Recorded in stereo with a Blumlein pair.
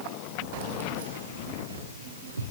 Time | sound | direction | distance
0.5 | keys jangling | 50° right | 1.3 m